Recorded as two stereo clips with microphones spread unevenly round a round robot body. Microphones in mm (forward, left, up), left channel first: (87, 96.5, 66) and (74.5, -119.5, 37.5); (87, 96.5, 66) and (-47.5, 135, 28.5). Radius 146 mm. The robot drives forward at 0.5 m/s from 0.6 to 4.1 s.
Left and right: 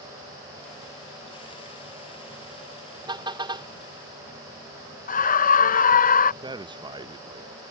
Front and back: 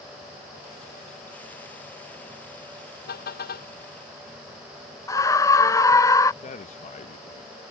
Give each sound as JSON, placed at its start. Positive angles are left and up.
{"t": 3.1, "sound": "a car horn", "azimuth_deg": -25}
{"t": 5.1, "sound": "a scream", "azimuth_deg": 60}
{"t": 6.4, "sound": "a man speaking", "azimuth_deg": -45}